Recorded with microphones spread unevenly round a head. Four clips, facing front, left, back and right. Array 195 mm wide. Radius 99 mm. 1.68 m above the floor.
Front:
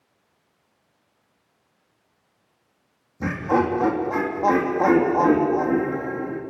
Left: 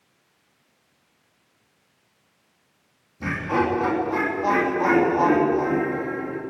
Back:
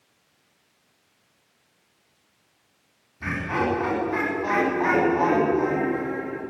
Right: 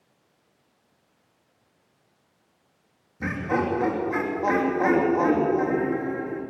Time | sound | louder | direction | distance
3.2 | laughter | left 2 dB, front 5 dB | 15° right | 3 m